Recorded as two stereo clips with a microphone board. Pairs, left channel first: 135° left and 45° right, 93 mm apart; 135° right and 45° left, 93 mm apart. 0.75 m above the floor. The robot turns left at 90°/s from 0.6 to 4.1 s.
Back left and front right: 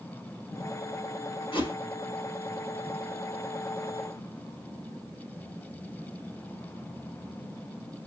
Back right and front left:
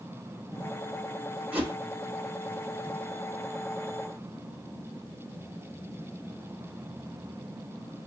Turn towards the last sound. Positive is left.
turn(degrees=-115)